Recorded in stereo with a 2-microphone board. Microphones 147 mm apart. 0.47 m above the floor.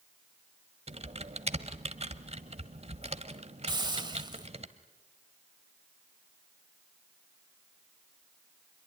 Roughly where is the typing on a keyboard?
Right.